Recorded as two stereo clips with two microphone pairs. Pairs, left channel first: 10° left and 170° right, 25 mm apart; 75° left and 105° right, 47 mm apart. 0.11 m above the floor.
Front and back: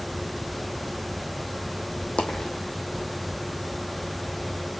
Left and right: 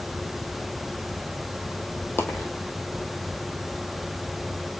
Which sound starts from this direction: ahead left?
A dropped coin, at 2.2 s.